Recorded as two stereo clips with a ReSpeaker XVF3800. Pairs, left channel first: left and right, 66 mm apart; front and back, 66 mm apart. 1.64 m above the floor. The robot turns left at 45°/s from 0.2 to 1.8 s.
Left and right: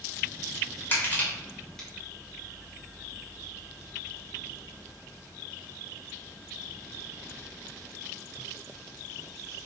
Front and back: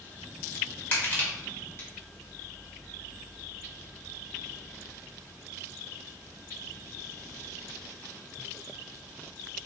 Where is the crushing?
55° left, 1.6 m; by 1.9 s 15° left, 1.6 m.